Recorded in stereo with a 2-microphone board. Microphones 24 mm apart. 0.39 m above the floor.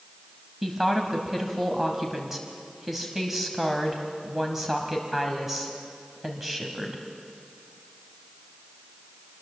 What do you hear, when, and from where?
0.6 s a woman speaking: 10° right (ahead or behind), 2 m